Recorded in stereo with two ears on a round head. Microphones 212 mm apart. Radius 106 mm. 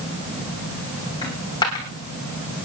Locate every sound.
1.2 s a dropped coin: 20° left (ahead or behind), 3.5 m